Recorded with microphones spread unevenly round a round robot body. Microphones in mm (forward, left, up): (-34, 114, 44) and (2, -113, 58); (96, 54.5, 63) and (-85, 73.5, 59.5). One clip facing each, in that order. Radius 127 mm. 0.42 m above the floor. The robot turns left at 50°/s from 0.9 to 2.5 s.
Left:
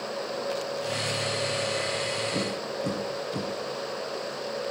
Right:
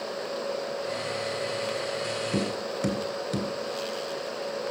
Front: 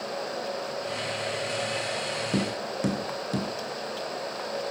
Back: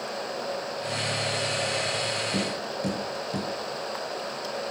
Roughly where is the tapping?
Ahead right.